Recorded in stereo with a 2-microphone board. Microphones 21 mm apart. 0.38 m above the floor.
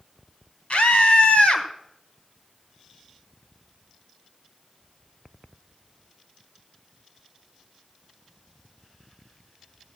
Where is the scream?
65° left (ahead or behind), 2 m.